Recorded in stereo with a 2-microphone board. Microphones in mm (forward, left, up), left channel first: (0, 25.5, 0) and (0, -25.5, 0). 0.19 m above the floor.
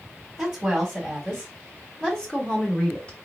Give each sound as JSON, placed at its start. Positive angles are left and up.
{"t": 0.4, "sound": "a woman speaking", "side_deg": -5, "distance_m": 1.6}